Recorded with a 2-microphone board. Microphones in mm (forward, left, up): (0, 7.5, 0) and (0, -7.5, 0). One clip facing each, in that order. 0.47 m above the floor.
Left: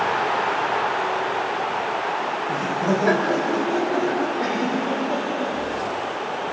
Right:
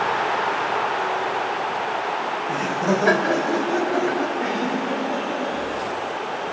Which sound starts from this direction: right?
Laughter, at 2.5 s.